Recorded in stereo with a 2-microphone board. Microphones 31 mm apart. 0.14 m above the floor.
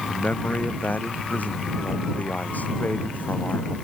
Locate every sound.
0.1 s a man speaking: 60° left (ahead or behind)